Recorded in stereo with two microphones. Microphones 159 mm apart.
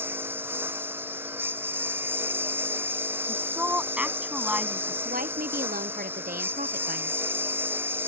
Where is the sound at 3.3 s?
5° right (ahead or behind).